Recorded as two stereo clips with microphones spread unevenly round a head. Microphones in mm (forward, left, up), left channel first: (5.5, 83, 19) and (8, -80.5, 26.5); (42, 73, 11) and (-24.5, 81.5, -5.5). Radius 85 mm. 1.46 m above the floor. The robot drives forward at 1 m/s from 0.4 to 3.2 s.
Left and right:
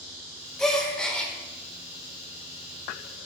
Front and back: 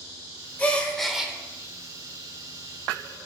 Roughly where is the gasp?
Ahead.